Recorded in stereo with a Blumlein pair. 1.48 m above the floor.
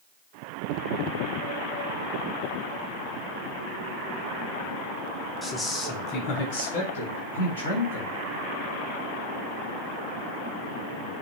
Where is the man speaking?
Straight ahead, 0.8 m; by 8.1 s 75° left, 2 m.